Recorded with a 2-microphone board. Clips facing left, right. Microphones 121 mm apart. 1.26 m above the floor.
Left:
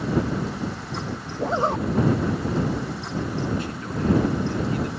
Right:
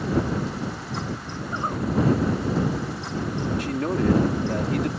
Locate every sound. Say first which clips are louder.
1.4 s a zipper: left 7 dB; 85° left
3.6 s a man speaking: right 4 dB; 85° right